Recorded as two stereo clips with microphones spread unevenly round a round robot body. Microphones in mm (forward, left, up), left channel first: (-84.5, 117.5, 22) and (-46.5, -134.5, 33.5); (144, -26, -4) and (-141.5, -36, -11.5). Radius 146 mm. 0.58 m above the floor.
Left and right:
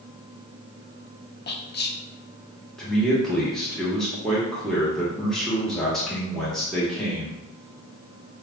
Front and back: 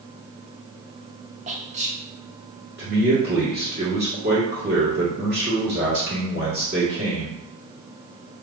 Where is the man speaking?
175° right, 1.3 m.